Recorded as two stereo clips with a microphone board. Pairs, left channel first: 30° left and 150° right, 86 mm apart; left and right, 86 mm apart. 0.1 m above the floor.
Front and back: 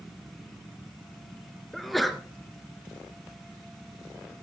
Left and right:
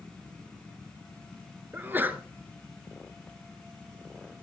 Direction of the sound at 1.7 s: 60° right.